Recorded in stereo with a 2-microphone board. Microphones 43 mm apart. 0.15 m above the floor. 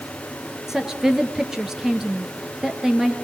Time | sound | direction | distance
0.7 | a woman speaking | 10° right (ahead or behind) | 2.5 m